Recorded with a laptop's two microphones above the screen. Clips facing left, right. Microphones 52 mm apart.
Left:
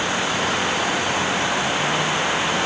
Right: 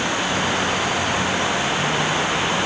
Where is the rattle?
I don't hear a rattle.